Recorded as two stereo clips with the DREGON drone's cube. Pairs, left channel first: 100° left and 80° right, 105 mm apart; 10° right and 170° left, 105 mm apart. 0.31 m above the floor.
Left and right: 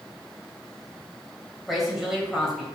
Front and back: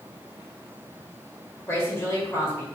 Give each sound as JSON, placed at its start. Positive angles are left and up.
{"t": 1.7, "sound": "a woman speaking", "azimuth_deg": 5, "distance_m": 1.6}